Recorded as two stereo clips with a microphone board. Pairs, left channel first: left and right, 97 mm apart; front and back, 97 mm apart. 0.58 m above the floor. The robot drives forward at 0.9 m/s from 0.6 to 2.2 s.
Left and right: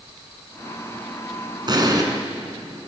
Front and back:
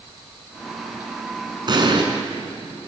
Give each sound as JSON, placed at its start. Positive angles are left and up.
{"t": 1.7, "sound": "an explosion", "azimuth_deg": -135, "distance_m": 2.5}